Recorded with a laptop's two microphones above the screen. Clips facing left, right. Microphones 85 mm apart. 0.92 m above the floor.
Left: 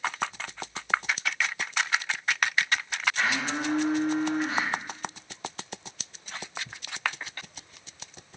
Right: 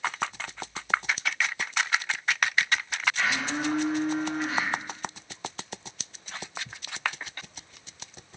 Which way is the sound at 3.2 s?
35° left (ahead or behind).